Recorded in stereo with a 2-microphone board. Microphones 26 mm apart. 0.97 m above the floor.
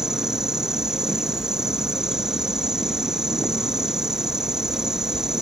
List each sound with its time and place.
0.0 s an insect: 25° right (ahead or behind)